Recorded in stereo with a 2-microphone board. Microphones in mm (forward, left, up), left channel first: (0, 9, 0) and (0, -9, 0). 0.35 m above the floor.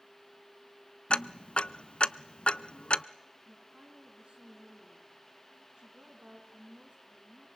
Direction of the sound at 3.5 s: 75° right (ahead or behind).